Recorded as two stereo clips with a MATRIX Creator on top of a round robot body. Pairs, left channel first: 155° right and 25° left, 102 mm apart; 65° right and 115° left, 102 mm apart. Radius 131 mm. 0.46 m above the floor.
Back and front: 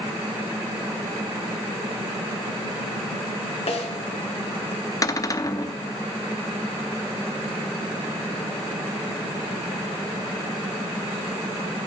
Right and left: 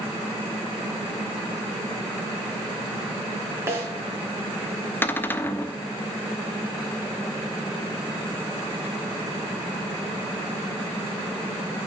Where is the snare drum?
Straight behind, 2.5 m.